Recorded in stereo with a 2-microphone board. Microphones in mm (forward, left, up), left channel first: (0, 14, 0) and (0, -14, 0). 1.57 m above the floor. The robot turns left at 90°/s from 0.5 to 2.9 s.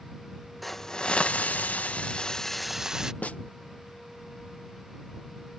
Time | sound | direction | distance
0.6 | a hiss | straight behind | ?
3.2 | a snare drum | 60° left (ahead or behind) | ?